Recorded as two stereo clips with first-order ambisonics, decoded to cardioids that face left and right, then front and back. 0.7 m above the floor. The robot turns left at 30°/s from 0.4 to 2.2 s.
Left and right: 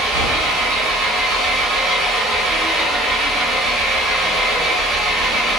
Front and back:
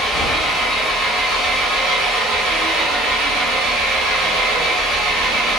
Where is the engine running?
105° right, 1.3 m; by 5.6 s 160° right, 1.3 m.